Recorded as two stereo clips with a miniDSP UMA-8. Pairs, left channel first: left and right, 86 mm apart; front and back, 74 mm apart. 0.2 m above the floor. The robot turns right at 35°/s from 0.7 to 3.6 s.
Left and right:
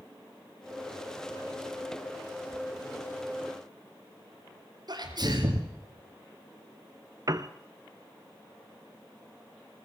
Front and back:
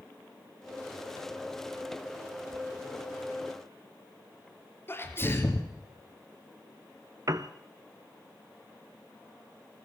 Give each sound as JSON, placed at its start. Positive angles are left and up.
{"t": 4.9, "sound": "a sneeze", "azimuth_deg": -55, "distance_m": 3.5}
{"t": 7.3, "sound": "a piano", "azimuth_deg": -135, "distance_m": 0.9}